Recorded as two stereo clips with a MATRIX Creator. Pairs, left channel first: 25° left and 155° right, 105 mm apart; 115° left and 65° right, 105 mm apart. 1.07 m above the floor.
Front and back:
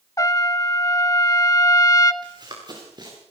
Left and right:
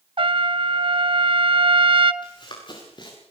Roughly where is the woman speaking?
I don't hear a woman speaking.